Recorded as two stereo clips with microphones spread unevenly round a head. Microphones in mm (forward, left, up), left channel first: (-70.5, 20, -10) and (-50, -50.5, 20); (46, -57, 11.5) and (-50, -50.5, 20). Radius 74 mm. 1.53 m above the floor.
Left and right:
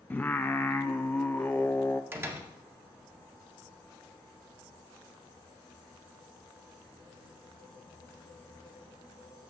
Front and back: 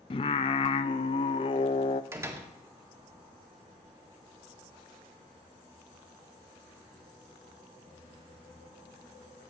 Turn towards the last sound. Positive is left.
turn(degrees=-125)